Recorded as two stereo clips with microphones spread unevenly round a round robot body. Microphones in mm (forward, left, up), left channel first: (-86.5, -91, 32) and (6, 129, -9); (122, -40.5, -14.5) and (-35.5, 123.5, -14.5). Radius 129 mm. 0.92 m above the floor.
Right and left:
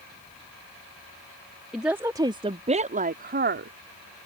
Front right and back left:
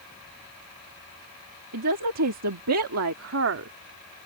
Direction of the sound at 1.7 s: 155° left.